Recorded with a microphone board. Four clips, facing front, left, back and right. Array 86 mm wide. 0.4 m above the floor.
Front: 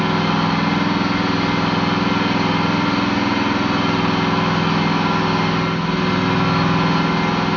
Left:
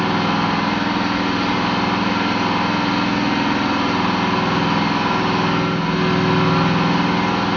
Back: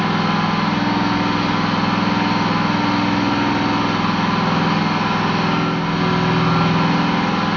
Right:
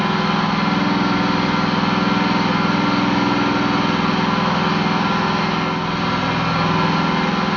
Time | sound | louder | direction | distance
0.0 | an engine running | even, even | 65° right | 1.6 m